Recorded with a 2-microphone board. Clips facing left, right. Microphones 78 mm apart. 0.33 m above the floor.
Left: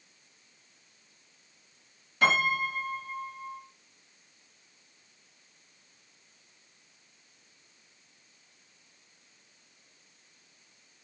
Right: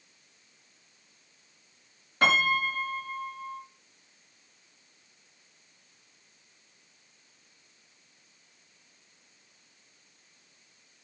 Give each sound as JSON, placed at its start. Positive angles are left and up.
{"t": 2.2, "sound": "a piano", "side_deg": -50, "distance_m": 4.5}